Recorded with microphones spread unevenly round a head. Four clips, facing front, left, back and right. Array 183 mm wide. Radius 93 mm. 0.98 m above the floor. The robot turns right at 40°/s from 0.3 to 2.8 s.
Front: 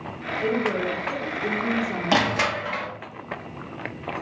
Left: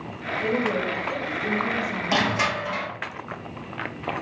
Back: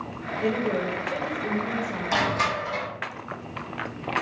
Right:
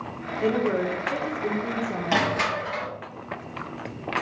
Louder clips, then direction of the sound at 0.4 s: Right 2 dB, front 1 dB; 85° right.